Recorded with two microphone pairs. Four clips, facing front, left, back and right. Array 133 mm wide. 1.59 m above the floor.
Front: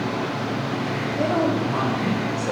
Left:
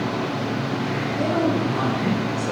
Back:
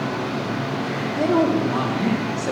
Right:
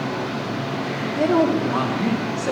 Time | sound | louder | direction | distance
1.2 | a woman speaking | right 4 dB, back 3 dB | 115° right | 2.5 m